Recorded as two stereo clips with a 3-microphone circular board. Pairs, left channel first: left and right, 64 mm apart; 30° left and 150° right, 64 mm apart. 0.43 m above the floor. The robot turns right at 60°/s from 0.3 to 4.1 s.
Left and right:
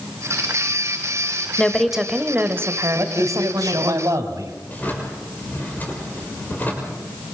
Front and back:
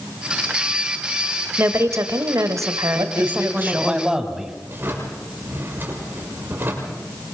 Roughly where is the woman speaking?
Behind.